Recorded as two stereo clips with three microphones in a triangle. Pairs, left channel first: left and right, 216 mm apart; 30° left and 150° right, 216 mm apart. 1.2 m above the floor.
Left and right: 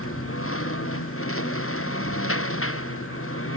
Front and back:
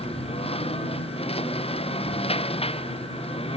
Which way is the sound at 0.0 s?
95° left.